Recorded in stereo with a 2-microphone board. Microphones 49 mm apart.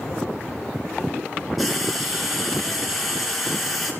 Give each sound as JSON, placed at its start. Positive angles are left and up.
{"t": 1.6, "sound": "frying", "side_deg": 0, "distance_m": 3.0}